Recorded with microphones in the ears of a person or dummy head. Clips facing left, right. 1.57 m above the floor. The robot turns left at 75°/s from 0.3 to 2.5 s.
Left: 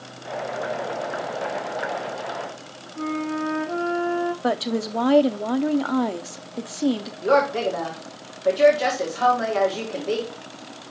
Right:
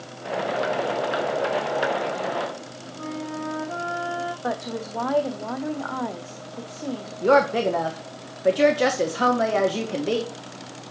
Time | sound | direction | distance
3.0 | a flute | 35° left (ahead or behind) | 1.4 m
4.4 | a woman speaking | 45° left (ahead or behind) | 0.5 m
7.2 | a woman speaking | 40° right (ahead or behind) | 0.8 m